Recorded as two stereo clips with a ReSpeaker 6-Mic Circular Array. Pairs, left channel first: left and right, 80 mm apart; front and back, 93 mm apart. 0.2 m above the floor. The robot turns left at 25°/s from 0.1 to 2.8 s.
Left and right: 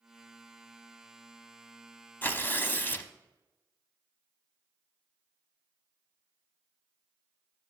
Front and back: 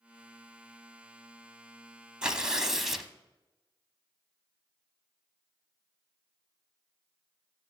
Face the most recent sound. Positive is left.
turn(degrees=95)